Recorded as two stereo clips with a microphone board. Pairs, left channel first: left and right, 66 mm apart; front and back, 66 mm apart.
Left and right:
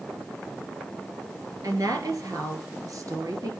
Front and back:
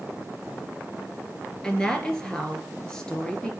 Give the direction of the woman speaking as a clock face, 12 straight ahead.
3 o'clock.